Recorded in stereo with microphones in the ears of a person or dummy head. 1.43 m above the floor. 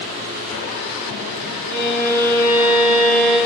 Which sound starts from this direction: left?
A violin, at 1.7 s.